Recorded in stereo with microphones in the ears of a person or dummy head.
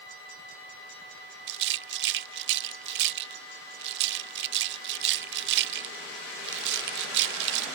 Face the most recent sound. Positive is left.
turn(degrees=-60)  # may be behind; listen again after turning